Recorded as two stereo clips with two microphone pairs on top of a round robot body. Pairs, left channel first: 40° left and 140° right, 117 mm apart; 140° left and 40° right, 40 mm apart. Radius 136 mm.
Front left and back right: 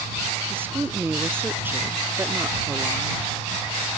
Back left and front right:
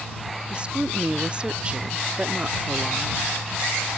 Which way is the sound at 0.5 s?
80° right.